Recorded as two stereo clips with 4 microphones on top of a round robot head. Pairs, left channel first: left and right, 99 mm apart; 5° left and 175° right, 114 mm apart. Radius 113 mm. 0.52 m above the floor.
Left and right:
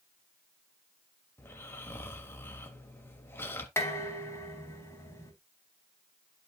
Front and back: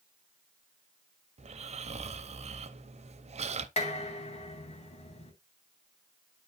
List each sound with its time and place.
1.4 s snoring: 160° left, 1.2 m
3.8 s dishes clattering: 25° left, 3.5 m